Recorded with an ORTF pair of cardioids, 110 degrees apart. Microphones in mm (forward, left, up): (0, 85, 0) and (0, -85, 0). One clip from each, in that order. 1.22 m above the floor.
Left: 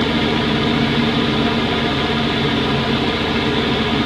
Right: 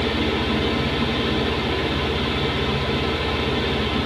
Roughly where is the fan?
Ahead left.